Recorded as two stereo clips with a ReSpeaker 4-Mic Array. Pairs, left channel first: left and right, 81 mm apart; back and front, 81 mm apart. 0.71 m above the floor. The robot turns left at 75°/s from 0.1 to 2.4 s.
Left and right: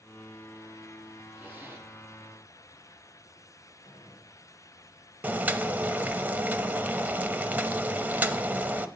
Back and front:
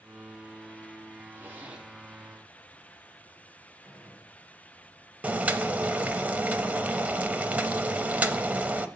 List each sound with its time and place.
1.4 s a zipper: 35° right, 1.1 m; by 1.9 s 75° right, 1.1 m
3.8 s a gunshot: 100° left, 2 m
5.2 s boiling: 50° right, 0.5 m